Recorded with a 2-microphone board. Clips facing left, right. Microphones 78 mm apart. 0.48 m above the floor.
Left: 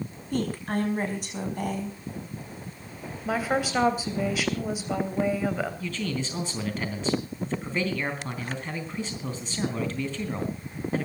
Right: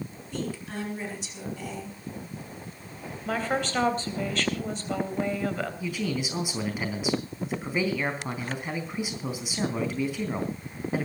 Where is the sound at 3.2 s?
10° left (ahead or behind), 3 m.